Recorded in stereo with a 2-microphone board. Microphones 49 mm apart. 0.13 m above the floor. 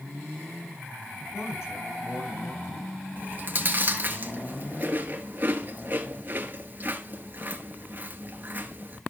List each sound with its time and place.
1.2 s a man speaking: 70° left (ahead or behind), 7 m
3.2 s chewing: 40° right (ahead or behind), 1.0 m